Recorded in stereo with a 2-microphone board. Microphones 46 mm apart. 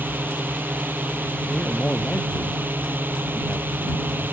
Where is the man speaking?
35° left (ahead or behind).